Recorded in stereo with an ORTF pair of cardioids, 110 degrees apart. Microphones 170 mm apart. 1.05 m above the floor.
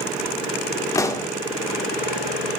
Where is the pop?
20° left, 2 m.